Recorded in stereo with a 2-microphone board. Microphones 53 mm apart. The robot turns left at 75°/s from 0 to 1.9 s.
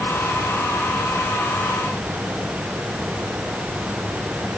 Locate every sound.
Only background noise.